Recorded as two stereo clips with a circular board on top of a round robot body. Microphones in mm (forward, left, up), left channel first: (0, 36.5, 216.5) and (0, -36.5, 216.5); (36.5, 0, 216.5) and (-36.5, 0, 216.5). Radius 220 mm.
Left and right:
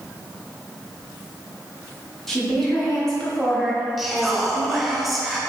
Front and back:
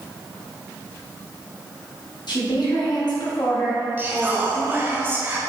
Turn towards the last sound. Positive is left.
turn(degrees=-175)